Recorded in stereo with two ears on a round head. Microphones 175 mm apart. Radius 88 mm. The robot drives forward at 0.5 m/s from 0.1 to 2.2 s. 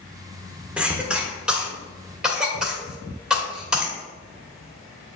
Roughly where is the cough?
Centre.